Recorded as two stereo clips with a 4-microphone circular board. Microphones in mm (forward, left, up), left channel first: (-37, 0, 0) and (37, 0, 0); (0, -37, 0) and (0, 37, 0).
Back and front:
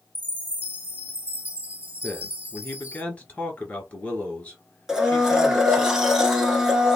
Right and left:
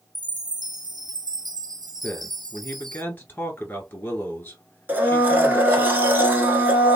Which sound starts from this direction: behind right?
A man speaking, at 2.0 s.